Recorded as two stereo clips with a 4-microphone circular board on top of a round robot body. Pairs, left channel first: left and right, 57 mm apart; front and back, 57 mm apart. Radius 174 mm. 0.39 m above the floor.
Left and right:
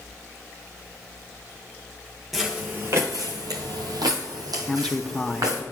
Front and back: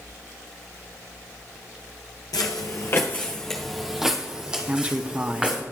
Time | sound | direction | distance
2.3 | footsteps | 5° right | 0.6 m
4.7 | a man speaking | 150° left | 0.9 m